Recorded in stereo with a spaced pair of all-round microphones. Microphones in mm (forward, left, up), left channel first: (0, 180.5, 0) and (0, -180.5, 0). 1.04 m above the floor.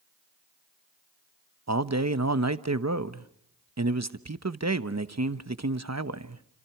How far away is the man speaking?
About 1.1 m.